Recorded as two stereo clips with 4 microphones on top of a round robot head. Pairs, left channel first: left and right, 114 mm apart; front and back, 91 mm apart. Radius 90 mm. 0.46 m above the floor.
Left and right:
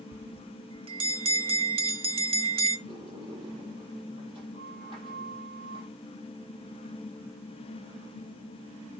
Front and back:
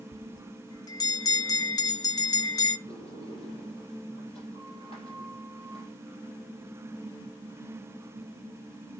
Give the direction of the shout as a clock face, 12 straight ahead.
No shout in this recording.